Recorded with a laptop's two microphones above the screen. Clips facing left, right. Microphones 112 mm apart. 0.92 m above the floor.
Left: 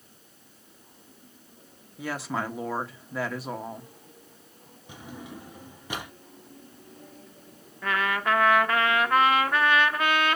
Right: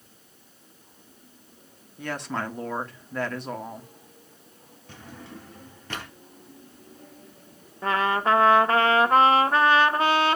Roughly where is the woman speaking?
Centre.